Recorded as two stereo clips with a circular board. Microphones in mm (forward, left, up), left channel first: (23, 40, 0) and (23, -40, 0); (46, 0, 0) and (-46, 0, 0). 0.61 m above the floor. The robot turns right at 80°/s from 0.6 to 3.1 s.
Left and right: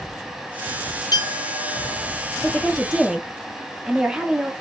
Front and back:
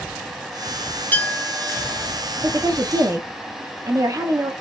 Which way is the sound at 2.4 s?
145° left.